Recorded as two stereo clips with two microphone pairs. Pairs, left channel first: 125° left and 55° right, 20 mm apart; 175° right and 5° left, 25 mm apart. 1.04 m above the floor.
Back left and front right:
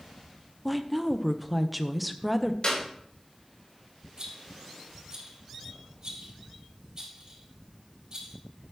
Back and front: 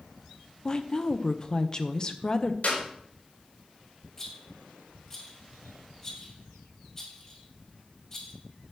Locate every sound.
0.7 s a woman speaking: 140° right, 0.8 m
2.6 s a clap: 165° left, 3.5 m
4.2 s a rattle: 105° right, 5 m